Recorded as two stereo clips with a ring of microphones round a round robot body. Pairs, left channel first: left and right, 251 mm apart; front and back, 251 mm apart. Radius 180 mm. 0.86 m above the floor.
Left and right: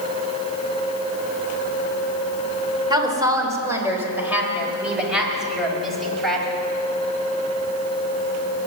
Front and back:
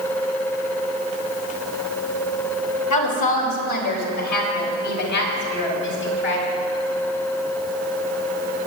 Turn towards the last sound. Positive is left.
turn(degrees=0)